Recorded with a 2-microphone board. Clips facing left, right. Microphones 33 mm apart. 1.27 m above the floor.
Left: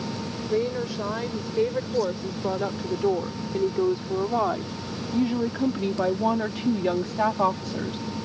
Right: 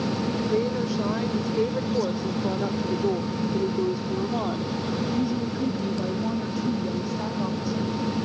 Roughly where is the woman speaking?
Centre.